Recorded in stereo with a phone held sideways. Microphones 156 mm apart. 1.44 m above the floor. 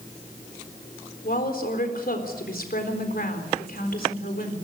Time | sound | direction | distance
1.2 | a woman speaking | 70° left (ahead or behind) | 4 m